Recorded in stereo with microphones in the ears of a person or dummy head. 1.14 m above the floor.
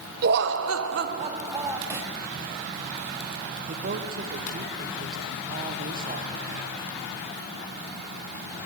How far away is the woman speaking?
About 0.9 m.